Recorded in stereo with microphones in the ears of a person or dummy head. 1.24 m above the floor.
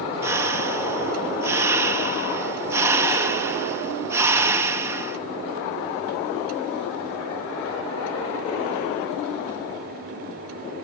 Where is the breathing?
15° right (ahead or behind), 0.5 m.